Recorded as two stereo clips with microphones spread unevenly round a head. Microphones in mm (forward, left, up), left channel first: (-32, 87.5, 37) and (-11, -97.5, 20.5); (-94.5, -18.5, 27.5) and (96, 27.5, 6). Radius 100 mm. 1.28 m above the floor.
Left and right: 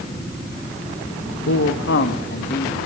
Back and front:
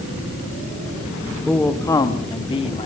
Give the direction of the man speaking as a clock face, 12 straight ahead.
8 o'clock.